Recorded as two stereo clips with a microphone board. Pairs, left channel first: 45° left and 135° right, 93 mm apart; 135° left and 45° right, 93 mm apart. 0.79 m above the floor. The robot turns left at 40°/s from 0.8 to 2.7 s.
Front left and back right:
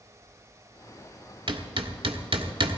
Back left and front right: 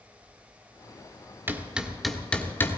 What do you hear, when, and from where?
1.5 s hammering: 110° right, 1.5 m; by 2.8 s 160° right, 1.5 m